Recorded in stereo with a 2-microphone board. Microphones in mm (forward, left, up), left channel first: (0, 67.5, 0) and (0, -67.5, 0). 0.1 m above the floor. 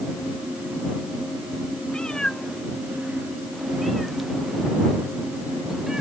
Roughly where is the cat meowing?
Centre.